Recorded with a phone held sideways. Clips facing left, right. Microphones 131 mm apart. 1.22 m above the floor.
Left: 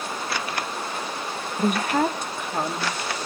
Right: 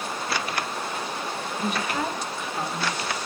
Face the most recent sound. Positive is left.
turn(degrees=55)  # may be behind; listen again after turning